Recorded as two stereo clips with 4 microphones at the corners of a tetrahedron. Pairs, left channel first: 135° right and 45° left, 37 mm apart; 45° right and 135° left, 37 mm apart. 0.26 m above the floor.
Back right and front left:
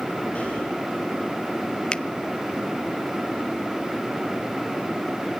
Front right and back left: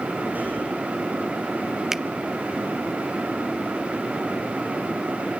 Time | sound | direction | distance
0.3 | breathing | 175° left | 6.5 m
1.9 | a finger snap | 155° right | 0.7 m